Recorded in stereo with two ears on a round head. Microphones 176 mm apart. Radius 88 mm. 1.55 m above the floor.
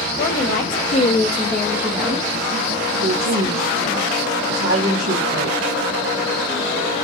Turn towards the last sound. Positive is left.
turn(degrees=-75)  # may be behind; listen again after turning